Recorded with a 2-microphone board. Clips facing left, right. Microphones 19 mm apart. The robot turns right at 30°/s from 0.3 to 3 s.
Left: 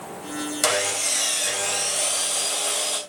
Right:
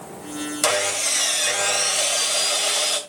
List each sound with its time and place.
0.6 s sawing: 175° left, 2.5 m; by 3.0 s 115° right, 2.5 m